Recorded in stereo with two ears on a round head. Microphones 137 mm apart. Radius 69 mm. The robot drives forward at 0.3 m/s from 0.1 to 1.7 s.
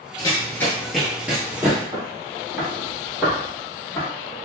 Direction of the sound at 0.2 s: 30° left (ahead or behind).